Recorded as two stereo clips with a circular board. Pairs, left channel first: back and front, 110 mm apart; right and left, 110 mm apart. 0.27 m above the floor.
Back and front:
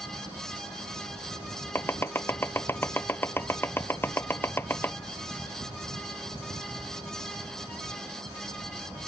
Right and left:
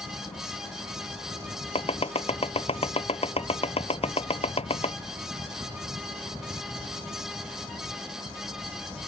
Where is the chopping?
110° right.